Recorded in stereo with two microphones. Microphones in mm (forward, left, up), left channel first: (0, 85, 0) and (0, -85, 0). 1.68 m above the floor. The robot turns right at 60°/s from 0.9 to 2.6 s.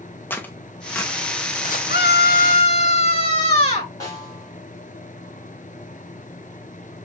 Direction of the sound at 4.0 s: 20° left (ahead or behind).